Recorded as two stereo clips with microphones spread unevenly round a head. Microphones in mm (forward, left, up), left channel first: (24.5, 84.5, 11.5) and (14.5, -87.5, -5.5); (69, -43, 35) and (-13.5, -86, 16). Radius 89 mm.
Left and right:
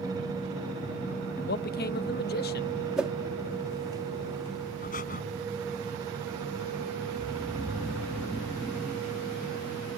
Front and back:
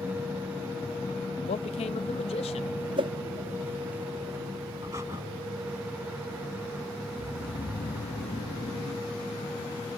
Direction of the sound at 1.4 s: 55° left.